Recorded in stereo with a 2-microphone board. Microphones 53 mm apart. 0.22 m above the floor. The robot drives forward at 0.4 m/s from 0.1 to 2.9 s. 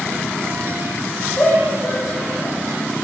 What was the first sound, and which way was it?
A shout, 35° left (ahead or behind).